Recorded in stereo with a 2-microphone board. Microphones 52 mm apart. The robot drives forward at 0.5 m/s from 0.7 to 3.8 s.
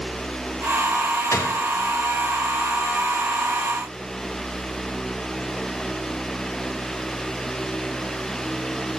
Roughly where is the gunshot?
Left.